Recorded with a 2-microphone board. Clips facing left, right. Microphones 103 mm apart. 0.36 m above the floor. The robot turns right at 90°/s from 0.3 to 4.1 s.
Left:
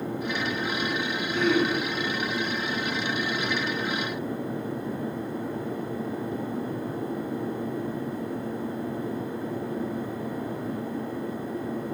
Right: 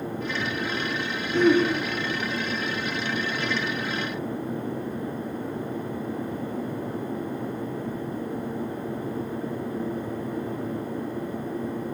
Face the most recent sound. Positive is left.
turn(degrees=95)